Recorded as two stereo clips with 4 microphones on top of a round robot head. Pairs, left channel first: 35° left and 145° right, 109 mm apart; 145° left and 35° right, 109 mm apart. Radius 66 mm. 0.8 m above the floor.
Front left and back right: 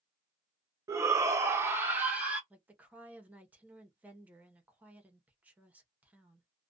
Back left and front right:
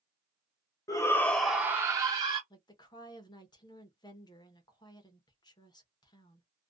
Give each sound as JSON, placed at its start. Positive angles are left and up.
{"t": 0.9, "sound": "a shout", "azimuth_deg": 175, "distance_m": 0.6}
{"t": 2.5, "sound": "a woman speaking", "azimuth_deg": 150, "distance_m": 0.8}